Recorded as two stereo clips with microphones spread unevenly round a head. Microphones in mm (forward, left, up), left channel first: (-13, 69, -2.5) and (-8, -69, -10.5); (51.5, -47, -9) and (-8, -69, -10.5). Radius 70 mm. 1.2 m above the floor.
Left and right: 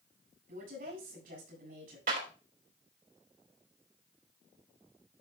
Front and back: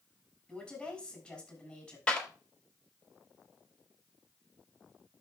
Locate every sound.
0.5 s a woman speaking: 60° right, 7 m
2.1 s a clap: 55° right, 4 m